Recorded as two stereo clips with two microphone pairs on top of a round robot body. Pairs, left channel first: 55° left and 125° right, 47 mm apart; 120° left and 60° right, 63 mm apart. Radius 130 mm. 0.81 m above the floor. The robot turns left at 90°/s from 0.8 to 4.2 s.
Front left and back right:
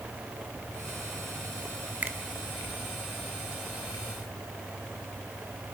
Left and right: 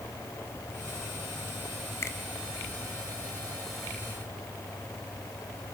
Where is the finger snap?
Straight behind, 1.3 m; by 2.2 s 165° left, 1.3 m.